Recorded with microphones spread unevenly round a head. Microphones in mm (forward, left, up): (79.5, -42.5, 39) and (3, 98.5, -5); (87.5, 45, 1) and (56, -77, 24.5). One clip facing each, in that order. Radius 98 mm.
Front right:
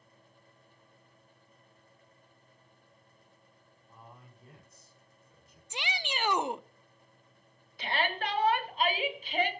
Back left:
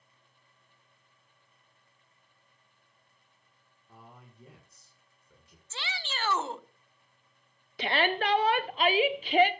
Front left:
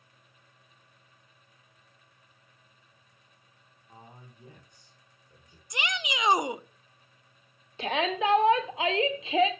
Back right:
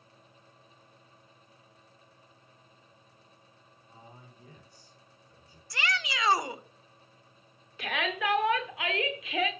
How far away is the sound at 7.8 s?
About 1.3 m.